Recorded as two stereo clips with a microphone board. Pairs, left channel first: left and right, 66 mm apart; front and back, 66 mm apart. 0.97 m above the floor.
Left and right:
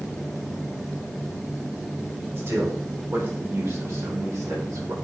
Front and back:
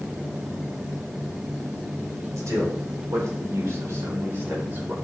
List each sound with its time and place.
2.4 s a man speaking: 140° right, 3.5 m; by 4.9 s 120° right, 2.5 m